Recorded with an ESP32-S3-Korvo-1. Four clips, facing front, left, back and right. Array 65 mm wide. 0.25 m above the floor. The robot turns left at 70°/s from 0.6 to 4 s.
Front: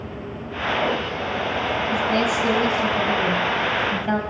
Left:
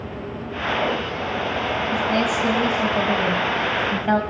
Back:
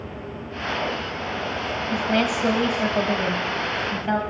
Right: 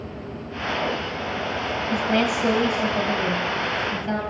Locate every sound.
1.9 s a woman speaking: 125° right, 1.3 m; by 4.2 s 90° left, 1.3 m